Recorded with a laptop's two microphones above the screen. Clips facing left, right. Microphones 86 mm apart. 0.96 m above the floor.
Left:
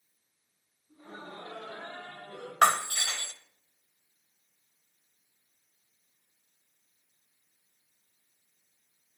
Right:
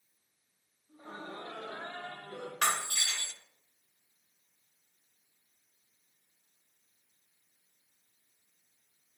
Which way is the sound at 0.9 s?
30° right (ahead or behind).